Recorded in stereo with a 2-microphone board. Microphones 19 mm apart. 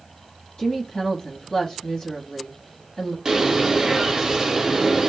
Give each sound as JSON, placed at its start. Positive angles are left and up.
{"t": 0.6, "sound": "a woman speaking", "side_deg": 20, "distance_m": 0.9}
{"t": 3.2, "sound": "a bird", "side_deg": -35, "distance_m": 0.6}